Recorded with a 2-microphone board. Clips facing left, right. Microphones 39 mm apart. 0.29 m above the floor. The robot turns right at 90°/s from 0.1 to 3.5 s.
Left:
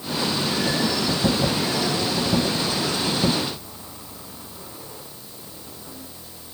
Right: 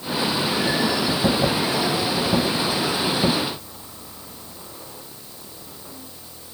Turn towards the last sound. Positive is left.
No sound to turn to.